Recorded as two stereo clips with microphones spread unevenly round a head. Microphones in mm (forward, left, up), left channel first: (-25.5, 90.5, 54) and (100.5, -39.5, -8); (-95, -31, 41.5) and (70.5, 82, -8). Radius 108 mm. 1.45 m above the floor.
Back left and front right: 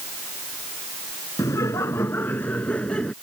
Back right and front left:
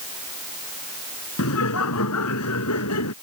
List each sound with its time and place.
1.4 s laughter: 150° right; by 3.1 s 140° right